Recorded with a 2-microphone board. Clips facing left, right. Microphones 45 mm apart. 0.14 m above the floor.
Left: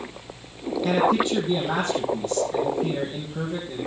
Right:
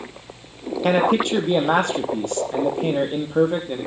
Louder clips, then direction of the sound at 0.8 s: Right 3 dB; 65° right (ahead or behind).